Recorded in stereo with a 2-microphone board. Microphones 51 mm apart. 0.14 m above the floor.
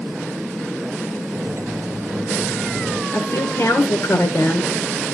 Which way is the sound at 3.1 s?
55° left (ahead or behind).